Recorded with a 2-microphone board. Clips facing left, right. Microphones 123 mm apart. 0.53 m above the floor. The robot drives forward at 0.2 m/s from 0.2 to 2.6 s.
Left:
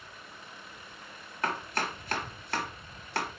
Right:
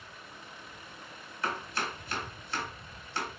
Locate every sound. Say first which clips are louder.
1.4 s chopping: left 2 dB; 55° left (ahead or behind), 1.1 m; by 3.3 s 65° left (ahead or behind), 0.9 m